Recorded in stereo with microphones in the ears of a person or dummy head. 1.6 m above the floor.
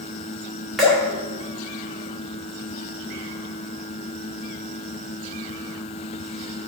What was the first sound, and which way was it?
Dripping, centre (ahead or behind).